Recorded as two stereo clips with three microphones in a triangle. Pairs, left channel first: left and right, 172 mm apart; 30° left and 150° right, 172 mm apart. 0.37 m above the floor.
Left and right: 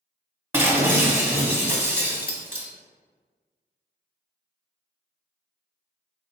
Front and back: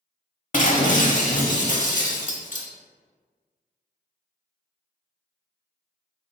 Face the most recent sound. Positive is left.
turn(degrees=-15)